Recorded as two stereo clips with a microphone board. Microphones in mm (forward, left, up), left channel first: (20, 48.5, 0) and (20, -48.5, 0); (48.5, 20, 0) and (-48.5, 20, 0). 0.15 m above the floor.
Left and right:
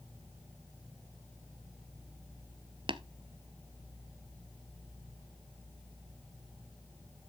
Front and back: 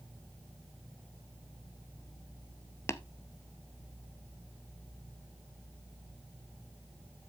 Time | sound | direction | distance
2.9 | tapping | 60° right | 0.5 m